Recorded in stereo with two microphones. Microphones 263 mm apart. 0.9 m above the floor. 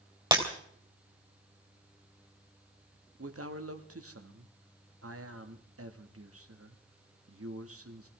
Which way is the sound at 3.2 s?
65° right (ahead or behind).